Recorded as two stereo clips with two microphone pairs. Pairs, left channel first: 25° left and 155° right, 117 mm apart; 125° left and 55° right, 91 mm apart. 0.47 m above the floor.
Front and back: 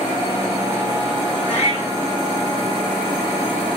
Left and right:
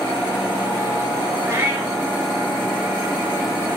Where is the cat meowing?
5° left, 3 m.